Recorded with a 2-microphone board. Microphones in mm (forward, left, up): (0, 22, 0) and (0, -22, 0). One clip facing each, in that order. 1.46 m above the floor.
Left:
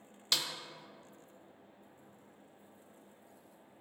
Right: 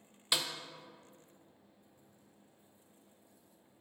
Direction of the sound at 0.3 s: 10° right (ahead or behind).